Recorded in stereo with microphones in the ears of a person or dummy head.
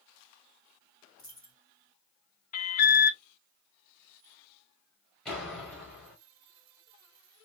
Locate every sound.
1.2 s a dropped coin: 10° left (ahead or behind), 3 m
2.5 s an alarm: 50° left (ahead or behind), 0.5 m
5.2 s a door slam: 5° left (ahead or behind), 2.5 m